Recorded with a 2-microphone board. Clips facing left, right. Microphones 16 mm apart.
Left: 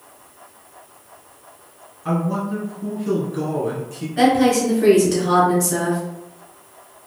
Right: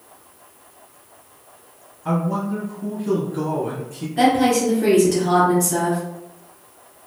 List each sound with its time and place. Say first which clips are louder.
2.0 s a man speaking: even; 10° left (ahead or behind), 1.8 m
4.2 s a woman speaking: left 1 dB; 10° left (ahead or behind), 1.2 m